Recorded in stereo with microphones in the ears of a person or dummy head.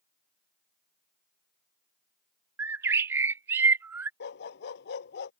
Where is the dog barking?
65° left (ahead or behind).